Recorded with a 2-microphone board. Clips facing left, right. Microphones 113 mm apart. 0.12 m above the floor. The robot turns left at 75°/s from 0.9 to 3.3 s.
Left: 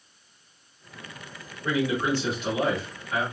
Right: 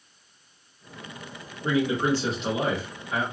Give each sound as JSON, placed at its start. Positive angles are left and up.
{"t": 1.6, "sound": "a man speaking", "azimuth_deg": -65, "distance_m": 1.5}